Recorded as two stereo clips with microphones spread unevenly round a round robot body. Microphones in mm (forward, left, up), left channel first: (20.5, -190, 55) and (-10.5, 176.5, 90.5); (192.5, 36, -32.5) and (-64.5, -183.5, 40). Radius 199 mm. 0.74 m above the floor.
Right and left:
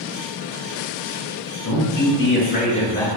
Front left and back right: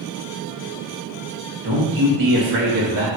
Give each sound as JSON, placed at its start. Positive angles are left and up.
{"t": 1.6, "sound": "a man speaking", "azimuth_deg": -115, "distance_m": 1.4}